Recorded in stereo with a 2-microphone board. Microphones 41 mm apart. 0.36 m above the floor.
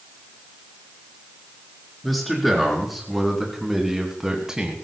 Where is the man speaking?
5° left (ahead or behind), 4.5 m; by 4.8 s 15° right (ahead or behind), 2.5 m.